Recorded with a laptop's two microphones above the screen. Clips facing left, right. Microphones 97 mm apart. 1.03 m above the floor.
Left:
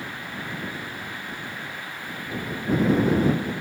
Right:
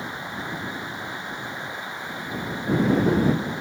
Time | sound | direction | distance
0.0 | running water | 20° right (ahead or behind) | ?